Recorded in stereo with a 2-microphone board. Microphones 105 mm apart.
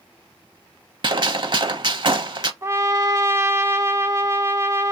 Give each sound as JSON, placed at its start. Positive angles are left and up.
{"t": 1.0, "sound": "a gunshot", "side_deg": -50, "distance_m": 0.6}
{"t": 2.6, "sound": "a trumpet", "side_deg": -30, "distance_m": 0.6}